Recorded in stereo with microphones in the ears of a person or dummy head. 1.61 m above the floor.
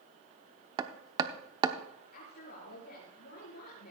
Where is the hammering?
20° right (ahead or behind), 0.8 m.